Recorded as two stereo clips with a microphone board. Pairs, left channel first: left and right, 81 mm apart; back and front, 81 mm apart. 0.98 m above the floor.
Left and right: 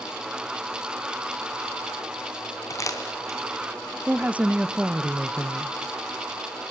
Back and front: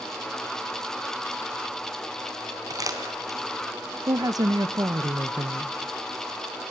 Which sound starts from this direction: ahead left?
Crumpling, at 2.7 s.